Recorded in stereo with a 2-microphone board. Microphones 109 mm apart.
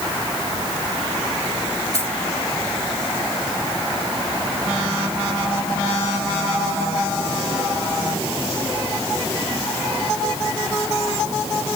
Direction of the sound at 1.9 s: 65° left (ahead or behind).